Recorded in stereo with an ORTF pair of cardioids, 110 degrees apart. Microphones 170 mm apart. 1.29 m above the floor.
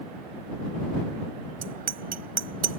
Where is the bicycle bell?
55° right.